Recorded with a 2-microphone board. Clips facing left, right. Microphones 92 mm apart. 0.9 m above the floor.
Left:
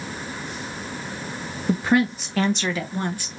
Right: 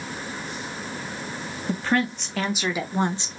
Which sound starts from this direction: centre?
A woman speaking, at 1.7 s.